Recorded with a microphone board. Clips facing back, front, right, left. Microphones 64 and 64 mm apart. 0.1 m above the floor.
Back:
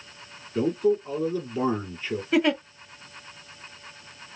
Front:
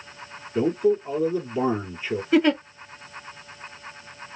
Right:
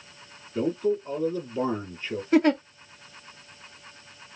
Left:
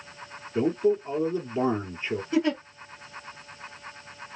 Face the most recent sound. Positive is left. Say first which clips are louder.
# front 3 dB, right 5 dB
turn(degrees=-90)